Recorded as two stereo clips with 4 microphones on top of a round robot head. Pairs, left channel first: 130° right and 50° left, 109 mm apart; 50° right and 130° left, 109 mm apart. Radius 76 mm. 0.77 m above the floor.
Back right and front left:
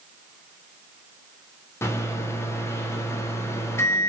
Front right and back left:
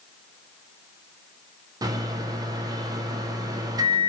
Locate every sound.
1.8 s a microwave: 175° left, 0.6 m